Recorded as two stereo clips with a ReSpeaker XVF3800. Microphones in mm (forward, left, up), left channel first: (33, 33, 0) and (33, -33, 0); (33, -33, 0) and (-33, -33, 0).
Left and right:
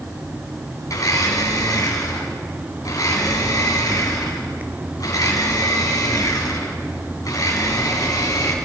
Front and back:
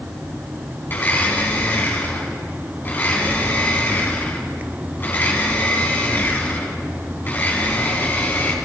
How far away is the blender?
About 4.5 m.